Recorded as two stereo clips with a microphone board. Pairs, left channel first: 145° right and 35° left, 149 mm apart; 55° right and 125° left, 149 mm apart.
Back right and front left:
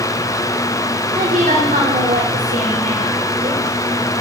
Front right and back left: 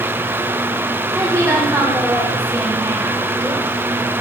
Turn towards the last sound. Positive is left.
turn(degrees=55)